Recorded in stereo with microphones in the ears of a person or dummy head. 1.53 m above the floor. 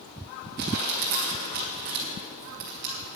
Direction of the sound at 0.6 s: 50° right (ahead or behind).